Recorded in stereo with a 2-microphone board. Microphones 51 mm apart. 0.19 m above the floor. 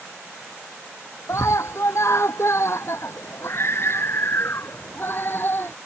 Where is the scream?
70° left (ahead or behind); by 5.8 s 45° left (ahead or behind).